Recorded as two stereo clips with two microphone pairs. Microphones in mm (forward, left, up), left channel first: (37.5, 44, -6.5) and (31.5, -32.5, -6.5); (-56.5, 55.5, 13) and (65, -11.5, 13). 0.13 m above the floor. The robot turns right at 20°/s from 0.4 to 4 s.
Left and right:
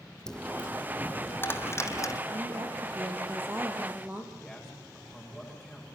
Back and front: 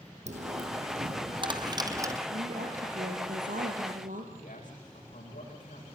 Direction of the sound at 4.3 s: 175° left.